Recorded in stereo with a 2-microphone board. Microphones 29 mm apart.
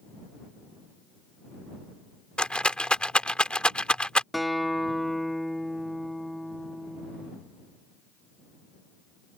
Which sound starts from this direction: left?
A rattle, at 2.4 s.